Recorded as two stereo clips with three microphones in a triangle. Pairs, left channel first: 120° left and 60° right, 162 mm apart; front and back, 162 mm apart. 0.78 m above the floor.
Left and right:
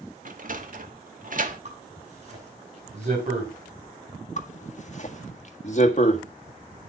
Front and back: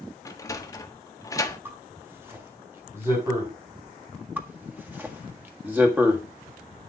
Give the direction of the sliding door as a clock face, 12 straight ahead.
2 o'clock.